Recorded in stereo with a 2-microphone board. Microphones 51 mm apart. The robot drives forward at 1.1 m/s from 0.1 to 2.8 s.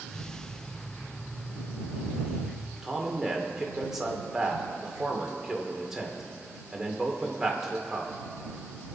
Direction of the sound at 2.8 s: 10° right (ahead or behind).